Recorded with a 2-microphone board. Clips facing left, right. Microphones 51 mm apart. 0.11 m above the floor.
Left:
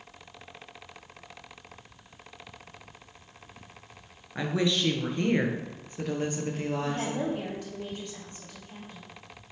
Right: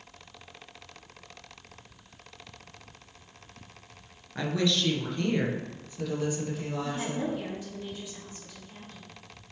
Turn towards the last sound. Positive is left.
turn(degrees=65)  # may be behind; listen again after turning